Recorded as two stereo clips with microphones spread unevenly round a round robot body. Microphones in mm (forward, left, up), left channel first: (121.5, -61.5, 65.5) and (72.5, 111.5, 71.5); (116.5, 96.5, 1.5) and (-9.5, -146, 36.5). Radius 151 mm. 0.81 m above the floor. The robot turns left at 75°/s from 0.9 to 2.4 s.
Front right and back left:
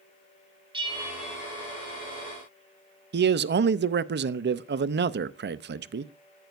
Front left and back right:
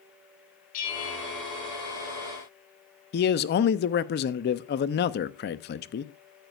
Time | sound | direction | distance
0.7 | a bell | 45° left | 2.5 m
3.1 | a man speaking | 110° left | 0.7 m